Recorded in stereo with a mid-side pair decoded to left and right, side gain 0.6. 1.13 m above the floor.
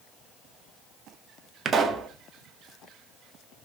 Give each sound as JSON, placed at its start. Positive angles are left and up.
{"t": 1.6, "sound": "a pop", "azimuth_deg": -35, "distance_m": 0.5}